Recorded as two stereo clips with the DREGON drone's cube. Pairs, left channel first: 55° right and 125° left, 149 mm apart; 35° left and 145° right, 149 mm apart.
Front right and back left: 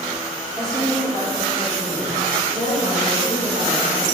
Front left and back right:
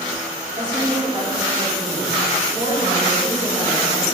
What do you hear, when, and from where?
0.6 s a woman speaking: straight behind, 1.6 m; by 4.2 s 140° left, 3.5 m